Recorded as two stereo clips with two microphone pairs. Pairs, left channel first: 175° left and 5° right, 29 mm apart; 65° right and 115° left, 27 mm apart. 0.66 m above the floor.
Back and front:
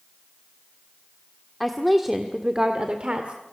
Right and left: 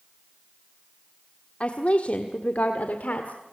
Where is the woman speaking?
100° right, 1.5 m; by 3.4 s 50° right, 2.0 m.